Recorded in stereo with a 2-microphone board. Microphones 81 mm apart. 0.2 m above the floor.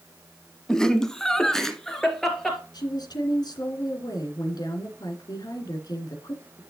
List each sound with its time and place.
0.7 s laughter: 10° left (ahead or behind), 1.1 m; by 2.6 s 5° left (ahead or behind), 3 m
2.7 s a woman speaking: 60° left (ahead or behind), 2.5 m